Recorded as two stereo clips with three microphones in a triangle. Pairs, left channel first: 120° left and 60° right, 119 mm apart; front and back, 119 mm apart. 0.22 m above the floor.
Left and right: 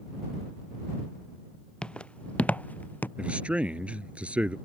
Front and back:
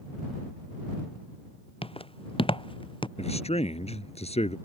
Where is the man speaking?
20° left.